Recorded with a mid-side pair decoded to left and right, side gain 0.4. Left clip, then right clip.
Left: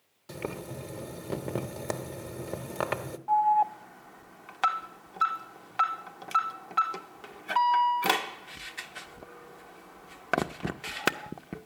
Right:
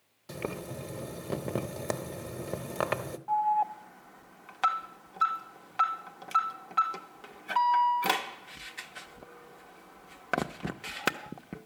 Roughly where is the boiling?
Ahead.